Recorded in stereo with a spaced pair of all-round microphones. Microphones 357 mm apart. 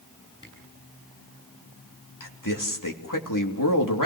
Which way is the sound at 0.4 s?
10° right (ahead or behind).